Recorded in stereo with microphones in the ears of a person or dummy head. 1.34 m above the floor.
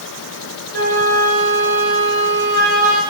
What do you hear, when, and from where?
0.7 s a flute: 65° right (ahead or behind), 6.5 m